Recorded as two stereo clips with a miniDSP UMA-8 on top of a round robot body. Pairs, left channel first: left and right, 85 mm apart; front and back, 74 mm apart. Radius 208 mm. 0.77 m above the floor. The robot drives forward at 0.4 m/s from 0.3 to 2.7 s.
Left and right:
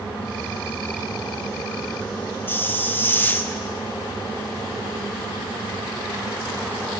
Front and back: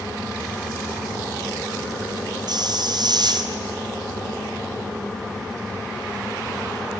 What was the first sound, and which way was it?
A hiss, 155° left.